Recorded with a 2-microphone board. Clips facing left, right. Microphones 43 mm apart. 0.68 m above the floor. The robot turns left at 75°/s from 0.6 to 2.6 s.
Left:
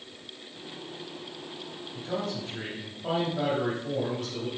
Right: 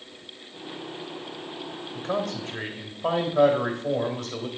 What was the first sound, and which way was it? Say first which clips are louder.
A man speaking: right 4 dB; 70° right.